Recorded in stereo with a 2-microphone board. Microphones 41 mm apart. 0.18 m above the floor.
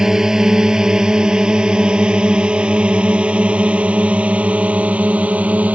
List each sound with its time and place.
0.0 s a drone: 15° right (ahead or behind); by 5.8 s 35° right (ahead or behind)